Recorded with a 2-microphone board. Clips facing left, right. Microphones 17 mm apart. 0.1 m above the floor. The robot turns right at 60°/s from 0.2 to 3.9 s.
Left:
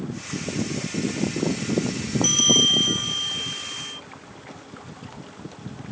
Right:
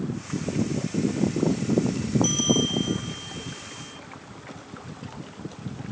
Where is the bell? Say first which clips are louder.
Left 9 dB; 20° left; by 4.0 s 120° left.